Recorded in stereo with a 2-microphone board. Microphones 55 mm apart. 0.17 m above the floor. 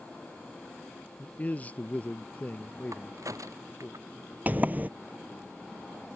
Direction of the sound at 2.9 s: 80° right.